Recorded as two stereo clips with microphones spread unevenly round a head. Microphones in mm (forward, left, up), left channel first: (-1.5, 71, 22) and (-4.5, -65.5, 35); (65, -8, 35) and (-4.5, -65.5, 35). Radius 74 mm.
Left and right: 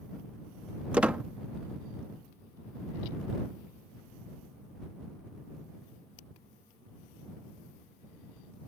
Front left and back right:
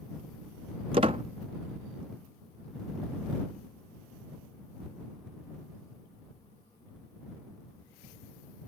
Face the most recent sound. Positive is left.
turn(degrees=-165)